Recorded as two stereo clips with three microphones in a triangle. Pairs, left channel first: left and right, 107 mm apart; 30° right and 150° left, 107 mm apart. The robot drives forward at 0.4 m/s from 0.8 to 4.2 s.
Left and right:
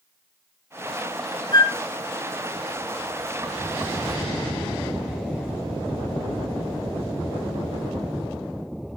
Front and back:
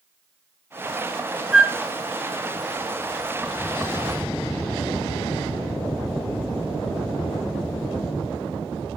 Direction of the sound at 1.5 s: 80° left.